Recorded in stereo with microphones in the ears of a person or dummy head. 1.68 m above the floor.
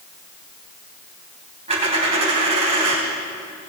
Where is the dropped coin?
35° right (ahead or behind), 4 m.